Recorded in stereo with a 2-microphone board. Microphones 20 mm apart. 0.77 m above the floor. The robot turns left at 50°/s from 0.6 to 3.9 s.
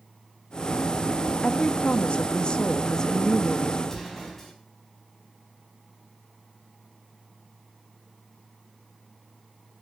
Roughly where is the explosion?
Left.